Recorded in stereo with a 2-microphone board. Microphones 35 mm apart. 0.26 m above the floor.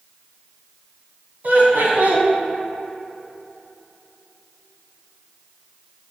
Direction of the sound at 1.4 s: 55° right (ahead or behind).